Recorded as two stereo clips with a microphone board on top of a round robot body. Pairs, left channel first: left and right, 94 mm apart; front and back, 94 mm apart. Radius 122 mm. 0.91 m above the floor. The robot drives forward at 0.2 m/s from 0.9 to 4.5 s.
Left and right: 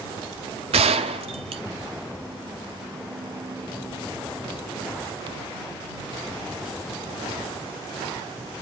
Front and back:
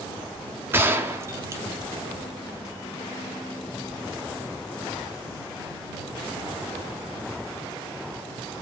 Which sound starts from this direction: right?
A gunshot, at 0.7 s.